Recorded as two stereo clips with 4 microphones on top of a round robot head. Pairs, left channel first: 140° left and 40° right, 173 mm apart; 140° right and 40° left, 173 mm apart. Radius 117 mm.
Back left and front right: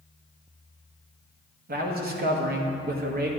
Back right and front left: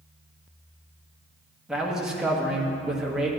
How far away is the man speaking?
About 1.4 m.